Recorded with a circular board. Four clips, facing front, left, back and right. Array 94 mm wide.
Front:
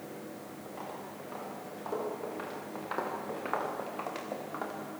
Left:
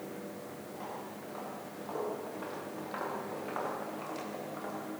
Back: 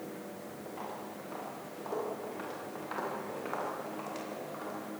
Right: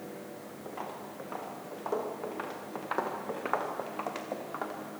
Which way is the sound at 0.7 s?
95° right.